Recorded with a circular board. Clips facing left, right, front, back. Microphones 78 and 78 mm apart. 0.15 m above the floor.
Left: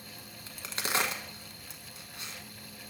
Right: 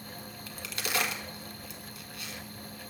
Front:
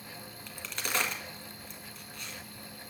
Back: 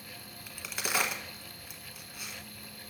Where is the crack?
105° left, 1.2 m.